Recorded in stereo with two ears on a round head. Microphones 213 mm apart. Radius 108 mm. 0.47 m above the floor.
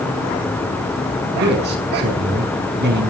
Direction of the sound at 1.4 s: 45° right (ahead or behind).